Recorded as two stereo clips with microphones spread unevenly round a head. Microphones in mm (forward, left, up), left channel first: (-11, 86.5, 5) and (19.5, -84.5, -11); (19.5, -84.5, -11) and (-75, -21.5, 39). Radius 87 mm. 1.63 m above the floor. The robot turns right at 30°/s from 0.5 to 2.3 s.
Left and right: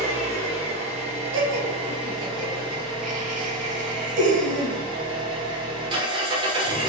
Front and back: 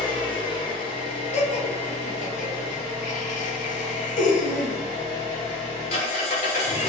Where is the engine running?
90° right, 0.8 m; by 6.9 s 35° right, 0.8 m.